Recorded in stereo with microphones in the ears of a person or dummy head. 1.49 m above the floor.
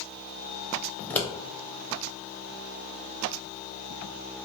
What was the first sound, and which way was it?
Scissors, 10° left (ahead or behind).